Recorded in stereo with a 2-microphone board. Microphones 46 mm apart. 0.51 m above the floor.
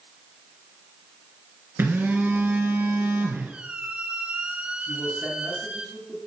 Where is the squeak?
25° right (ahead or behind), 1.8 m.